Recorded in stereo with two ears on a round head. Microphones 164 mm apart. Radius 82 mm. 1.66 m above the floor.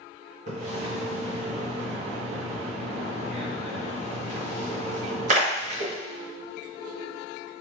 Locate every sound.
0.5 s a splash: 40° right (ahead or behind), 1.2 m